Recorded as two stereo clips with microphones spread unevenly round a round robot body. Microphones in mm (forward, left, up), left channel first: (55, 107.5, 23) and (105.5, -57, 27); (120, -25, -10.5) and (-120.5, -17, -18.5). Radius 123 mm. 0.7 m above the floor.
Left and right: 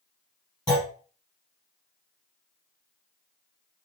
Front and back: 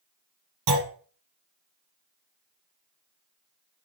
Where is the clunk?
175° right, 3 m.